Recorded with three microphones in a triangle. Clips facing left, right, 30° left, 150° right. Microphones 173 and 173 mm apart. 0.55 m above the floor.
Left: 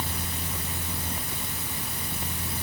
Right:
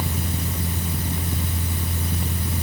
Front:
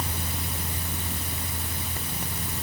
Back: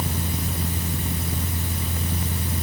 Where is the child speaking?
No child speaking in this recording.